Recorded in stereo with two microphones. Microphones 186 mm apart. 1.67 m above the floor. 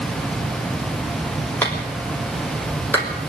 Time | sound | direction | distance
1.6 | a clap | 10° left (ahead or behind) | 5 m